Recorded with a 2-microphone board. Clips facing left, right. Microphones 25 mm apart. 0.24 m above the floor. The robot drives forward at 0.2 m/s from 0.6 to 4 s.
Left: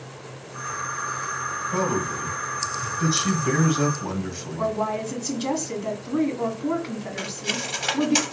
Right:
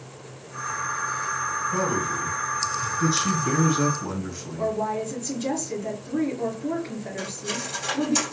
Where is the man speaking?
25° left (ahead or behind), 1.6 m.